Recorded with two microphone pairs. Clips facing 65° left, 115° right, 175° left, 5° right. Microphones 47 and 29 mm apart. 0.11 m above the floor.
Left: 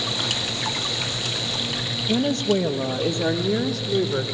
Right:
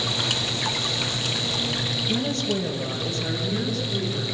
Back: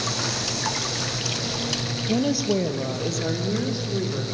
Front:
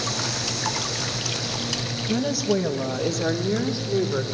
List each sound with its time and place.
2.1 s a woman speaking: 115° left, 2 m; by 4.2 s 60° left, 3.5 m